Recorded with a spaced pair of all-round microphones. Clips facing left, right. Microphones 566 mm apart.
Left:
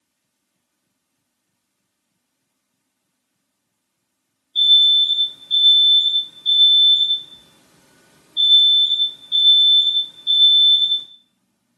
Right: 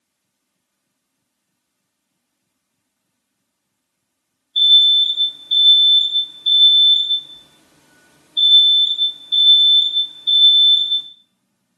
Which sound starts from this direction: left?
An alarm, at 4.5 s.